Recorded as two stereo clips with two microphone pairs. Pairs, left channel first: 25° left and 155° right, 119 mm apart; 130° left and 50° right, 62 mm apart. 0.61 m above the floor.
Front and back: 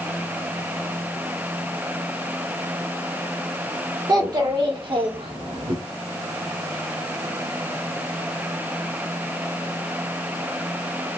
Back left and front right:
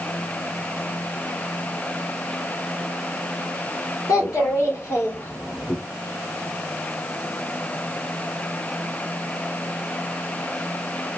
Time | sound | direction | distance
4.1 | a child speaking | 155° left | 1.3 m